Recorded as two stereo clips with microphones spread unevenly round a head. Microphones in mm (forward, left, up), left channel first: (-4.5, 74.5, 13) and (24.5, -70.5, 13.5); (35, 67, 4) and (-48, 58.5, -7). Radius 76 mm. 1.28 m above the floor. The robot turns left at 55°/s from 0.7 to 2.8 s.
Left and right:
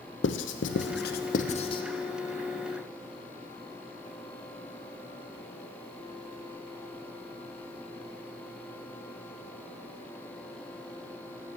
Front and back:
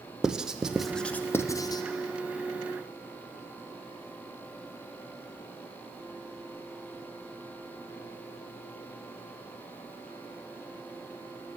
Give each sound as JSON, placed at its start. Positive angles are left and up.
{"t": 0.2, "sound": "writing", "azimuth_deg": 100, "distance_m": 0.6}